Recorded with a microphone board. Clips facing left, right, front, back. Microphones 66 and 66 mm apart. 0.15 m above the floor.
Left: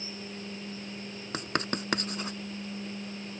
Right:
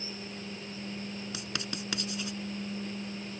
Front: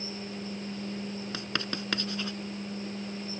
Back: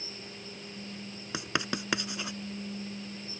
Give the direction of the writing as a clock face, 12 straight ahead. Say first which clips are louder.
Left 6 dB, back 5 dB; 8 o'clock.